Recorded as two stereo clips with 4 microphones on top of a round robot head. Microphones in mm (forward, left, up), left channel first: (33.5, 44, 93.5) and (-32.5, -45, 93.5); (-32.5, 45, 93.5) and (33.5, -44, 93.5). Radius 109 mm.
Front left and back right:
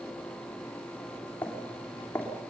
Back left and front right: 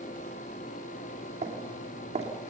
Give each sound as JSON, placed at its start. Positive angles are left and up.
{"t": 1.4, "sound": "footsteps", "azimuth_deg": -25, "distance_m": 3.0}